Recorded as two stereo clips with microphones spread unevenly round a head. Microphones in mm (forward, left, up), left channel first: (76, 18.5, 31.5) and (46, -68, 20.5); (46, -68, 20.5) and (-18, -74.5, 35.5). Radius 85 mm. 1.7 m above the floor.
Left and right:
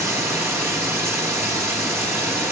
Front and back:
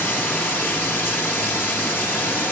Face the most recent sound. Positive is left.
turn(degrees=-55)